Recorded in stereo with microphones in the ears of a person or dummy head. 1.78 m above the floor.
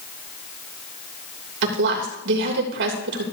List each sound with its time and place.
1.6 s a woman speaking: 65° right (ahead or behind), 3 m